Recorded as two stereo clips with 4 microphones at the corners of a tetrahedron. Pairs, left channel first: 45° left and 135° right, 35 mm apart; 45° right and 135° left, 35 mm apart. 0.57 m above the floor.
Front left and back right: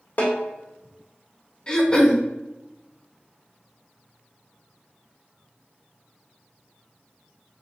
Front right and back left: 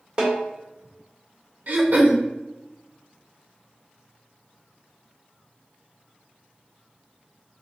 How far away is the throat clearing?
About 1.0 m.